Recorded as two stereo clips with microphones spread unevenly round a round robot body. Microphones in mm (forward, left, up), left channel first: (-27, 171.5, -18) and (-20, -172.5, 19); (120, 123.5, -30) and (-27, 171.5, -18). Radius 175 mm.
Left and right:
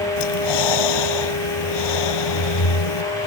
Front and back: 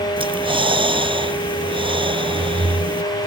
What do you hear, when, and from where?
0.2 s breathing: 105° left